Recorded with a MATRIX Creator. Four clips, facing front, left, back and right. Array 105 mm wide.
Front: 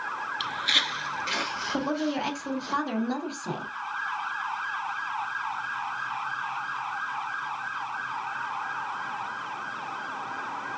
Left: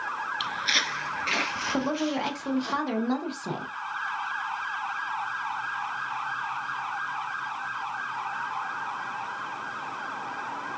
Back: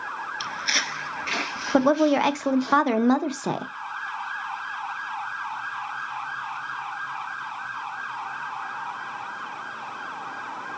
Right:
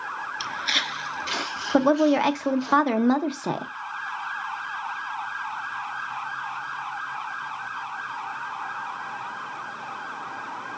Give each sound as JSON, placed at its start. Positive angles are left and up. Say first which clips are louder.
{"t": 0.4, "sound": "footsteps", "louder": "even, back 1 dB", "azimuth_deg": -130, "distance_m": 0.8}
{"t": 1.7, "sound": "a woman speaking", "louder": "right 10 dB, back 10 dB", "azimuth_deg": -145, "distance_m": 0.5}